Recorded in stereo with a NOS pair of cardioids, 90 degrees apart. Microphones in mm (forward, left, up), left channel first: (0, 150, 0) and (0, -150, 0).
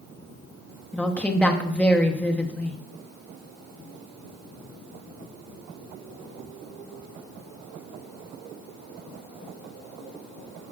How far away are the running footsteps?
I don't hear running footsteps.